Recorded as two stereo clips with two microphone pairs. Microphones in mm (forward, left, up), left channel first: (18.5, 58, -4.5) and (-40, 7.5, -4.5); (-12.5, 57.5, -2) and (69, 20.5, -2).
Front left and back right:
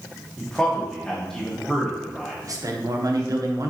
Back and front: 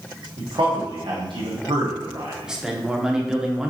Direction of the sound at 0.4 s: 40° right.